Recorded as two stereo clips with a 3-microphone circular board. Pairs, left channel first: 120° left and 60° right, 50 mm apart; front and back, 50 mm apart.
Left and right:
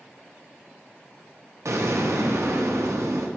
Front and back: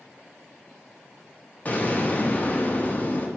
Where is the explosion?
55° right, 0.5 m.